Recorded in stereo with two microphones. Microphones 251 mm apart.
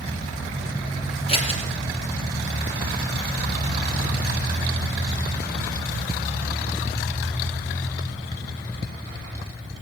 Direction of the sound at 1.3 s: 25° left (ahead or behind).